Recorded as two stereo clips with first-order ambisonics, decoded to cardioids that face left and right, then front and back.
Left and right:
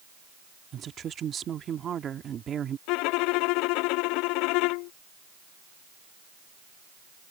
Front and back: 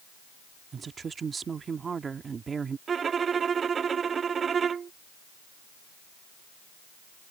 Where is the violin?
110° left.